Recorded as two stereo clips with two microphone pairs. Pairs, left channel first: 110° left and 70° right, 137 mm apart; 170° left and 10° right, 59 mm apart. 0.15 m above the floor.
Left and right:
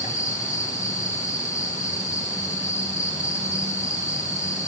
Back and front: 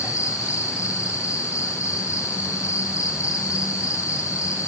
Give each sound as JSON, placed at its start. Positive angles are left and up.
{"t": 0.0, "sound": "an insect", "azimuth_deg": 135, "distance_m": 5.0}